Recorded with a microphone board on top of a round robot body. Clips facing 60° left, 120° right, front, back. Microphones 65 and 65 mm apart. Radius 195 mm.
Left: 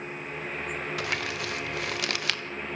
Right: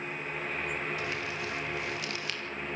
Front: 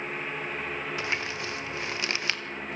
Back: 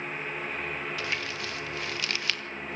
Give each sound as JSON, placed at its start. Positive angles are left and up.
{"t": 1.0, "sound": "crumpling", "azimuth_deg": 65, "distance_m": 1.5}